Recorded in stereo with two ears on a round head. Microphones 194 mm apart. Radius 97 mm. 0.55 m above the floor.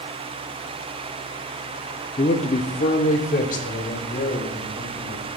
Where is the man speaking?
25° left (ahead or behind), 0.6 m; by 5.3 s 35° left (ahead or behind), 2.5 m.